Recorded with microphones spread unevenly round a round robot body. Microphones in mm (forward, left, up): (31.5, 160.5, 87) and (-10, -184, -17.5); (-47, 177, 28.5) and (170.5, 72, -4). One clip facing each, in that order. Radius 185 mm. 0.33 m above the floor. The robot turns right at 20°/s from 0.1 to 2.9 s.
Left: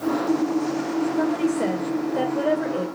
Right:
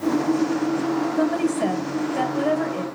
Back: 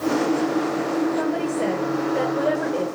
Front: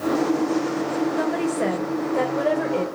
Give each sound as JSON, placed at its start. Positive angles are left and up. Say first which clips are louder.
{"t": 1.2, "sound": "a woman speaking", "louder": "right 1 dB, even", "azimuth_deg": -75, "distance_m": 1.4}